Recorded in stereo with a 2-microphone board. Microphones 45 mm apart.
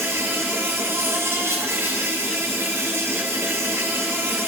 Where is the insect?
80° right, 3.5 m.